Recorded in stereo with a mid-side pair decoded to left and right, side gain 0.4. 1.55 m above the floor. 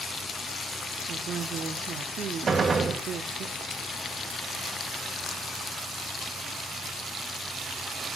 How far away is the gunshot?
About 1.4 m.